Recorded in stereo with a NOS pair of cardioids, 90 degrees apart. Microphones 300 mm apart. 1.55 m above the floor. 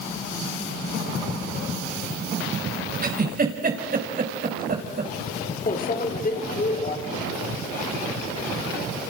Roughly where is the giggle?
Ahead right.